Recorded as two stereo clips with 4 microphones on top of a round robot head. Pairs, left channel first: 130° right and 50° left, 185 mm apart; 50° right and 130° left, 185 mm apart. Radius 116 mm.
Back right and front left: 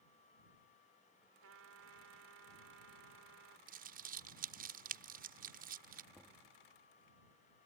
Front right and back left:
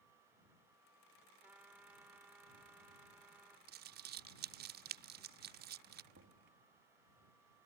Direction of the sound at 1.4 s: 50° left.